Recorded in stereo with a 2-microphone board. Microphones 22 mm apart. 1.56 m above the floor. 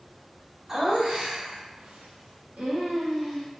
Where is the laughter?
30° right (ahead or behind), 0.8 m; by 3.5 s 35° right (ahead or behind), 1.0 m.